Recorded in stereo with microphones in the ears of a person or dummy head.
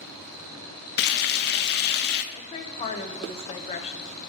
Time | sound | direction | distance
1.0 | frying | 45° left (ahead or behind) | 0.5 m
2.3 | a woman speaking | 25° left (ahead or behind) | 0.8 m